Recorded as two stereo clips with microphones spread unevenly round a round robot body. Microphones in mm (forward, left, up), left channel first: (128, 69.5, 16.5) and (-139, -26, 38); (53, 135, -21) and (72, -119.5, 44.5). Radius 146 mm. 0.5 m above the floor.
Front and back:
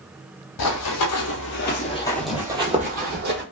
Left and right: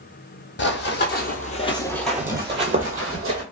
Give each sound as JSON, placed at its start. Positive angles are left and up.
{"t": 0.6, "sound": "running footsteps", "azimuth_deg": 45, "distance_m": 0.9}